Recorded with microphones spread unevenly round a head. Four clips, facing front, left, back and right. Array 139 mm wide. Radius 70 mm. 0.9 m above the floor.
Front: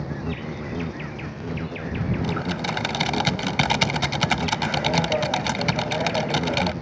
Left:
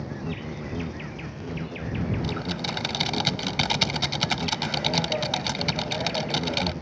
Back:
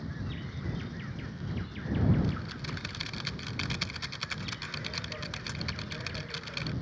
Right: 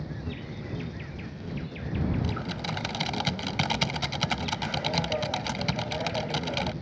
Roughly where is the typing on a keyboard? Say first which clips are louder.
Left 3 dB, front 10 dB; ahead.